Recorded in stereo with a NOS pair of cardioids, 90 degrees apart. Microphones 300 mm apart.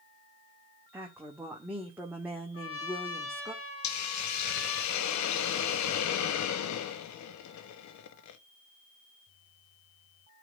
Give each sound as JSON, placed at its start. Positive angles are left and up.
{"t": 0.9, "sound": "a woman speaking", "azimuth_deg": -5, "distance_m": 2.0}
{"t": 2.5, "sound": "a trumpet", "azimuth_deg": 45, "distance_m": 2.5}
{"t": 3.8, "sound": "a hiss", "azimuth_deg": 70, "distance_m": 1.0}